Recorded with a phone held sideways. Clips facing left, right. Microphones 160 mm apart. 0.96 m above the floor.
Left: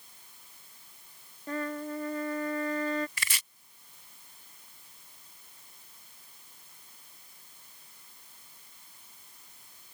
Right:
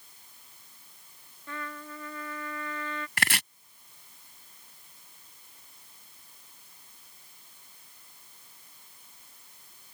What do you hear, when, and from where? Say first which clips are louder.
1.5 s a trumpet: left 7 dB; 40° left (ahead or behind)
3.2 s chopping: right 9 dB; 75° right (ahead or behind)